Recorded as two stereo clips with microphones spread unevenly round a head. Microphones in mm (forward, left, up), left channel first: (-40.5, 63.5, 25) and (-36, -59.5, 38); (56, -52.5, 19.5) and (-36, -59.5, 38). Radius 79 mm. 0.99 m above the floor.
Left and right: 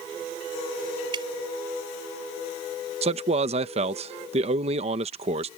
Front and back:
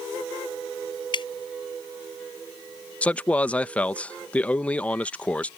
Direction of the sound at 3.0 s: 60° right.